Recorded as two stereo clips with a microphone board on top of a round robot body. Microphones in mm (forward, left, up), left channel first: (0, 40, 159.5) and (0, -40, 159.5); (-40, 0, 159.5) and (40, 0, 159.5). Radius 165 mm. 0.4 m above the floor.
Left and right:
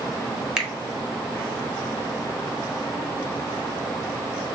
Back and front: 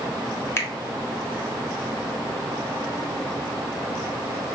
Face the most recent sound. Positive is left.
turn(degrees=-165)